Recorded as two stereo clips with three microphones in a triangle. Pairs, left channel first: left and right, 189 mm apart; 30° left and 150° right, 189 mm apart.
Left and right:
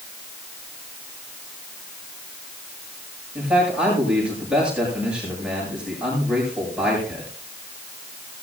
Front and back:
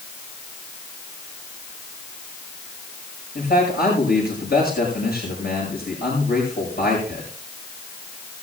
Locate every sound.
3.4 s a man speaking: 5° right, 8.5 m